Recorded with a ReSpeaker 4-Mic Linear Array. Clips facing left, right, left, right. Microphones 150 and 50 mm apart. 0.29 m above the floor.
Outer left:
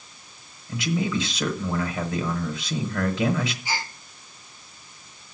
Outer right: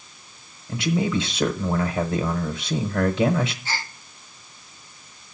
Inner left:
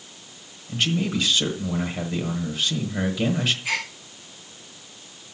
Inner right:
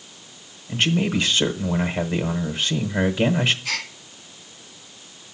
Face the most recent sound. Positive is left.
turn(degrees=15)  # may be behind; listen again after turning